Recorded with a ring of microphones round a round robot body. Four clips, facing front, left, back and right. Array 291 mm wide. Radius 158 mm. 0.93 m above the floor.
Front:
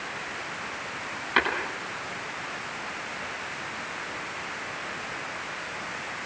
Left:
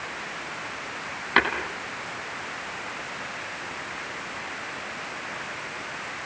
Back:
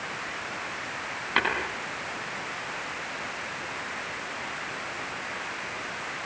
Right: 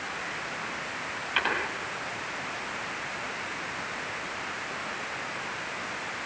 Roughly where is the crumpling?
I don't hear crumpling.